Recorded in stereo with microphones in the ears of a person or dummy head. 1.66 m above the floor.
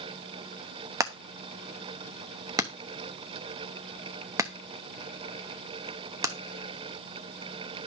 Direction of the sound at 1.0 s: 15° right (ahead or behind).